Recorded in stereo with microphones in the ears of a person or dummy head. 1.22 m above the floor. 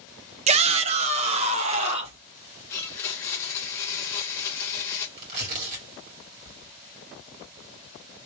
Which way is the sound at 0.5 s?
35° right (ahead or behind).